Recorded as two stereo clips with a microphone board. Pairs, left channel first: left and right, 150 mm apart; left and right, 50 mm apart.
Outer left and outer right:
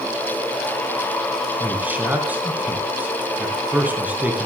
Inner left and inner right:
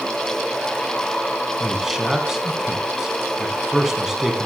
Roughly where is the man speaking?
Centre.